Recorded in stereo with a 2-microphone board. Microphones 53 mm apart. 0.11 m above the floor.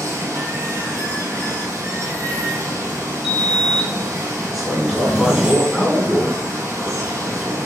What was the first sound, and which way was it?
Running water, 75° right (ahead or behind).